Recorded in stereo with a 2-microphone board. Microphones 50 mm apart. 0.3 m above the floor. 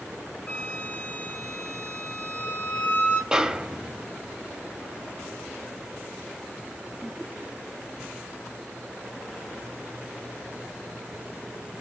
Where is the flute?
30° left (ahead or behind), 4 m.